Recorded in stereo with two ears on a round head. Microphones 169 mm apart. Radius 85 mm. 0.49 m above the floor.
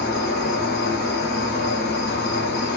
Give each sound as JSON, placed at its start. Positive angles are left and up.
{"t": 0.0, "sound": "an insect", "side_deg": 60, "distance_m": 0.8}